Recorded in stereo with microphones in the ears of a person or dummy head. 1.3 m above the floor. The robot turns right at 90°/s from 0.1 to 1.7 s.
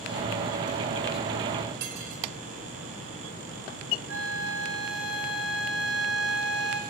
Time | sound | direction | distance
1.8 | cutlery clinking | 65° right (ahead or behind) | 3.5 m
4.1 | a flute | 70° right (ahead or behind) | 2.5 m